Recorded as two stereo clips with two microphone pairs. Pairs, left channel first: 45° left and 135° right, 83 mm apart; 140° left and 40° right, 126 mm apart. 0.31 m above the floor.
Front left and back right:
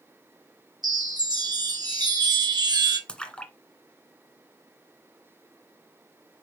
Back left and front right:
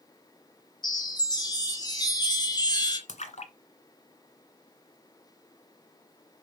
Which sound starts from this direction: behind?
A chime, at 0.8 s.